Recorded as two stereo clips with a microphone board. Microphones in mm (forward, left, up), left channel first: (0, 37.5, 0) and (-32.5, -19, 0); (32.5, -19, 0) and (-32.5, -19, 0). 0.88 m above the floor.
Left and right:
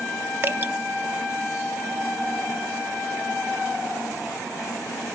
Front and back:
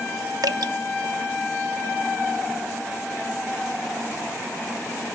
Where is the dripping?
175° right, 0.7 m.